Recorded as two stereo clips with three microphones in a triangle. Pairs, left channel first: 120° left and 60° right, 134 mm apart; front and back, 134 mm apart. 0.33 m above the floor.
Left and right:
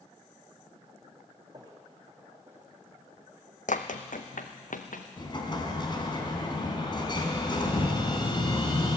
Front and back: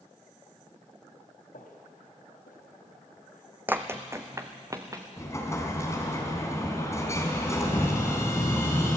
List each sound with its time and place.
1.5 s footsteps: 5° left, 5 m; by 3.4 s 15° left, 7 m
3.7 s running footsteps: 105° left, 1.2 m; by 5.0 s 115° left, 2.5 m
5.2 s an explosion: 65° left, 3 m